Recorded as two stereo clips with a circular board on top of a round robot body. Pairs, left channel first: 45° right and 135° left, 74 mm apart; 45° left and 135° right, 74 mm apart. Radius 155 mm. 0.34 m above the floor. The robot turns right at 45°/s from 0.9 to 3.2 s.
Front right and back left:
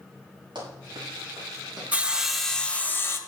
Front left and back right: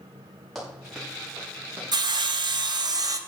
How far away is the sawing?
About 1.1 m.